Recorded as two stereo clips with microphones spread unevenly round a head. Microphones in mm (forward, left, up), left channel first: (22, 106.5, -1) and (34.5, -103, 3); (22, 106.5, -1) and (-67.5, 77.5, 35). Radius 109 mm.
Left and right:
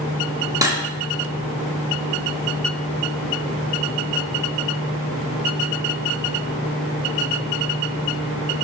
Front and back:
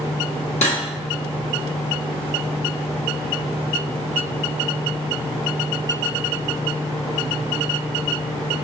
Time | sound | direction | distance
0.6 | cutlery clinking | 15° right | 1.3 m